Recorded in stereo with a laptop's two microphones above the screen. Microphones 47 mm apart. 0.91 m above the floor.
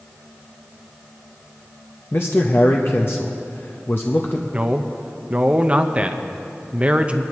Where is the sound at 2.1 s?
55° left (ahead or behind), 0.7 m.